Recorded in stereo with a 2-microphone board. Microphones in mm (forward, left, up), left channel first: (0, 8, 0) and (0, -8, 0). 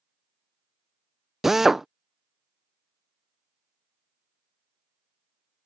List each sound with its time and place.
1.4 s a drill: 25° right (ahead or behind)